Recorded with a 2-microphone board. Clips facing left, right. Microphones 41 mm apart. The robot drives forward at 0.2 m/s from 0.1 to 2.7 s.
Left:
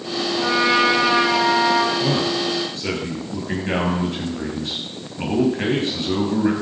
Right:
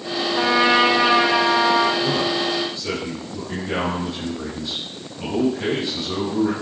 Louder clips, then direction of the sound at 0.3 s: Right 1 dB; 50° right (ahead or behind).